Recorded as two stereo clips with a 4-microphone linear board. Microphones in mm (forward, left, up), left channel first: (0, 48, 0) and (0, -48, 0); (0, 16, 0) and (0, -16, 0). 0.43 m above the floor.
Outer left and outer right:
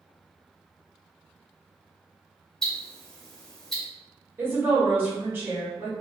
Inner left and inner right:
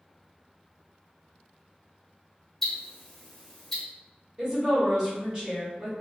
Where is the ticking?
5° left (ahead or behind), 0.9 m.